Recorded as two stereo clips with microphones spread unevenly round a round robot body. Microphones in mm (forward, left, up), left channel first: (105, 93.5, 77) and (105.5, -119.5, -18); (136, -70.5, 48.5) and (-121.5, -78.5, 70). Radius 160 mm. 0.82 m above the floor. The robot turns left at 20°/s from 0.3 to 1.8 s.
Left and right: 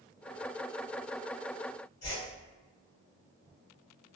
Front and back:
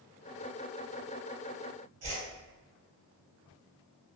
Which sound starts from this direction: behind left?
A whoosh, at 2.0 s.